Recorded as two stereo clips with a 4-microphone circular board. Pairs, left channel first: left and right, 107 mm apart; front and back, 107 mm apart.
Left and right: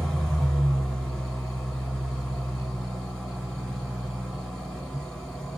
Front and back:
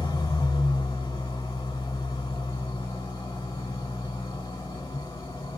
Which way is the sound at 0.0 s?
10° left.